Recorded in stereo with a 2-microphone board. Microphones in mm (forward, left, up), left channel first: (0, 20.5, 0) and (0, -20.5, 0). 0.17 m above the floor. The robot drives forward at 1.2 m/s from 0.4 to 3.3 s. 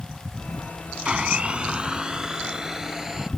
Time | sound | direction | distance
1.1 | a blender | 30° right (ahead or behind) | ?